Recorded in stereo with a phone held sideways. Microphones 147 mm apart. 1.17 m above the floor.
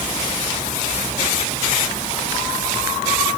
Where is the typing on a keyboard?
I don't hear typing on a keyboard.